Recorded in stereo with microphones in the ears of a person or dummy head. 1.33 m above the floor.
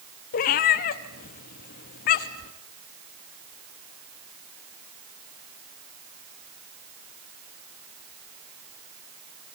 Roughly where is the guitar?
I don't hear a guitar.